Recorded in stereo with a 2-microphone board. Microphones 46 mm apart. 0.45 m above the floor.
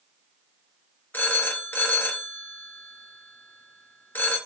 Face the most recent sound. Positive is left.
turn(degrees=45)  # may be behind; listen again after turning